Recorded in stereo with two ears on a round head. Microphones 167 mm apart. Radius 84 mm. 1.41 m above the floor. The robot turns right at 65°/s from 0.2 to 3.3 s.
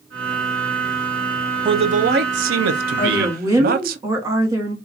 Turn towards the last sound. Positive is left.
turn(degrees=-15)  # may be behind; listen again after turning